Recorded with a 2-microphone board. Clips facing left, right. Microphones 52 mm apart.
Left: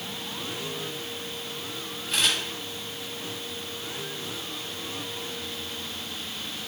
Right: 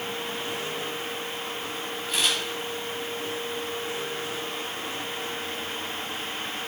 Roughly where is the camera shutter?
Left.